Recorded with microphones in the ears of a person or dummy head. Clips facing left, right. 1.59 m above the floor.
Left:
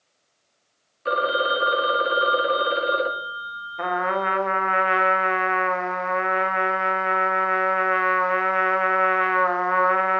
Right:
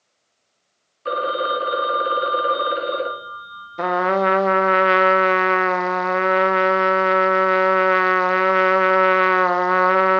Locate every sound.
1.1 s a phone ringing: centre (ahead or behind), 0.8 m
3.8 s a trumpet: 45° right (ahead or behind), 0.5 m